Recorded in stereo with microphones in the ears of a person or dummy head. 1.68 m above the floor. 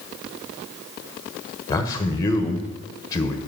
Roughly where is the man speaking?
Centre.